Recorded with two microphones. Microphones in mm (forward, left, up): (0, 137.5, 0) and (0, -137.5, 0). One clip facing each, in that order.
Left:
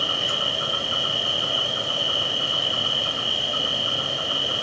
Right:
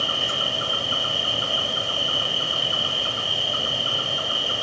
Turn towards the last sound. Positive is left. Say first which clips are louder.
# even
turn(degrees=70)  # may be behind; listen again after turning